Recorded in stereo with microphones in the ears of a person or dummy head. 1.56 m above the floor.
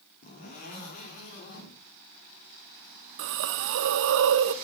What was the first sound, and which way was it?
A zipper, 45° left (ahead or behind).